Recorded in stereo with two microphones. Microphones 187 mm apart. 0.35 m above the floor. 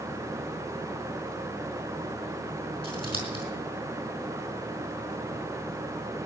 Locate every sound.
2.8 s scissors: 30° left (ahead or behind), 4.5 m